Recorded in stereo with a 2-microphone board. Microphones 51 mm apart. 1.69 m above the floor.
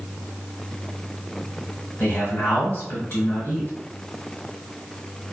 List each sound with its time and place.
2.0 s a man speaking: 45° left (ahead or behind), 1.6 m